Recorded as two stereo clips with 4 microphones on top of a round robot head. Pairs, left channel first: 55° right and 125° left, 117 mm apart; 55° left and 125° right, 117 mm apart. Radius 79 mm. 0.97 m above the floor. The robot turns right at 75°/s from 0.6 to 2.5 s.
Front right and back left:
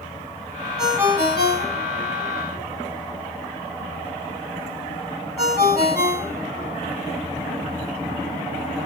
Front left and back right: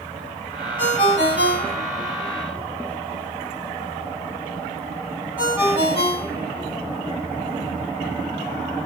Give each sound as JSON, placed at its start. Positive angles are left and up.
{"t": 0.8, "sound": "a ringtone", "azimuth_deg": 60, "distance_m": 1.6}